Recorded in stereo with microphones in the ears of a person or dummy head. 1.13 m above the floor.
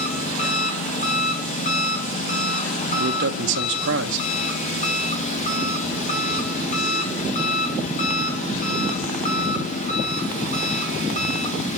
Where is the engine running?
35° left (ahead or behind), 1.0 m.